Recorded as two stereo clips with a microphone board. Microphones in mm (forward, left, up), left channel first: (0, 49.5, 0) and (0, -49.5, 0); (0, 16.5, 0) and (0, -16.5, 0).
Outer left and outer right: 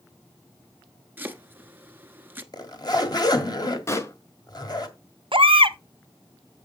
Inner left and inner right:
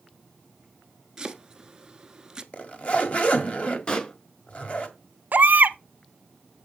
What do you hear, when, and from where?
1.2 s chopping: 20° right (ahead or behind), 1.0 m
2.5 s a zipper: 45° left (ahead or behind), 1.7 m
3.9 s a pop: 30° left (ahead or behind), 0.9 m
5.3 s a baby crying: 65° right (ahead or behind), 0.7 m